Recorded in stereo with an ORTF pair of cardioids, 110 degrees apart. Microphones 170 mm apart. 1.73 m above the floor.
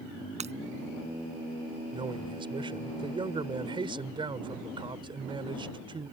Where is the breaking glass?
40° right.